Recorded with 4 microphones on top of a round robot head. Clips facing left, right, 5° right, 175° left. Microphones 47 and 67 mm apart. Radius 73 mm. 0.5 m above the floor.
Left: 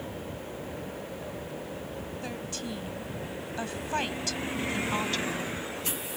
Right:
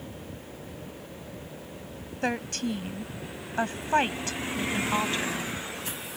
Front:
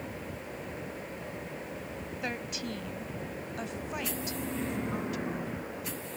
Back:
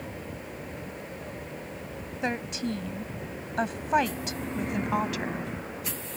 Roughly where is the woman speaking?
Behind right.